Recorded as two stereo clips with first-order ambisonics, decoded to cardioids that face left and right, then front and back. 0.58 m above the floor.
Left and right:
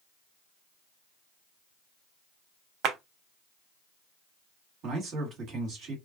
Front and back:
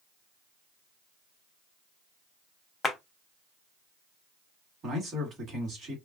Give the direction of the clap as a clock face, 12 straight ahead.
2 o'clock.